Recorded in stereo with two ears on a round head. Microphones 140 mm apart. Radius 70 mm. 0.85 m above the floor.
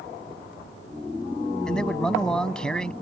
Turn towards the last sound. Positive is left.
turn(degrees=5)  # may be behind; listen again after turning